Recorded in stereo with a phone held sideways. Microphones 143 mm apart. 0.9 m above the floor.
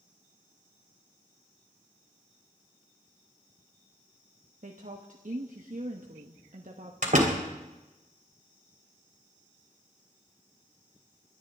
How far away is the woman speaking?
About 1.1 m.